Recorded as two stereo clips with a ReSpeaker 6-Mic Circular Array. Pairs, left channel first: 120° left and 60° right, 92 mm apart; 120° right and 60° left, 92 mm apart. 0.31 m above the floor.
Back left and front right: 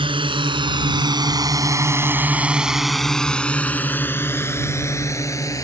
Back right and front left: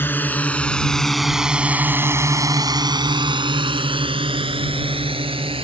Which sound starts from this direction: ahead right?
A drone, at 0.0 s.